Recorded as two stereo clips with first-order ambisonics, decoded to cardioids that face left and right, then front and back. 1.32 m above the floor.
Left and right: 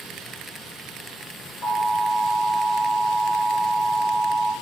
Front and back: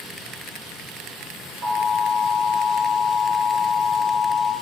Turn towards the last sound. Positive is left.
turn(degrees=155)